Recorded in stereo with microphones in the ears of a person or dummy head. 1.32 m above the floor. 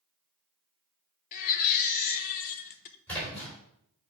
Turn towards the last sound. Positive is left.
turn(degrees=10)  # may be behind; listen again after turning